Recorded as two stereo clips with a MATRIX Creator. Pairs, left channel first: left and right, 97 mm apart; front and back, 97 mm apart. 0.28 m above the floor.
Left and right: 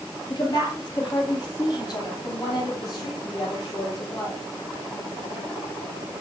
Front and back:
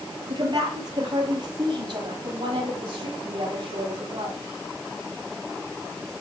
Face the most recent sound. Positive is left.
turn(degrees=140)